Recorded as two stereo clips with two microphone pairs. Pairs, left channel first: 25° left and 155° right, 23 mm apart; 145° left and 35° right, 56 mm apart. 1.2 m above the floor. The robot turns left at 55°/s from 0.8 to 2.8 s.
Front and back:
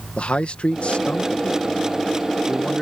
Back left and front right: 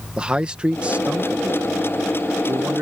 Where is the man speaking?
35° left; by 2.8 s 75° right.